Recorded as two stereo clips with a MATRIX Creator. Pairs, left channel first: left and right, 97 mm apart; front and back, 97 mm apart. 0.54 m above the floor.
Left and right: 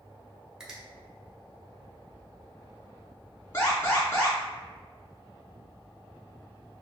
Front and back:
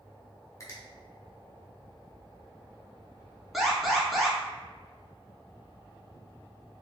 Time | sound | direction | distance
0.6 | a finger snap | 15° right | 1.0 m
3.5 | an alarm | 95° left | 1.2 m